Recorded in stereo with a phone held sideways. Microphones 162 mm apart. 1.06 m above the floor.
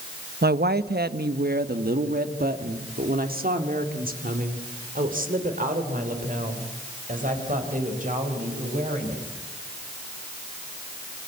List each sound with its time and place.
0.4 s a woman speaking: 80° right, 0.9 m; by 9.2 s 55° right (ahead or behind), 5.5 m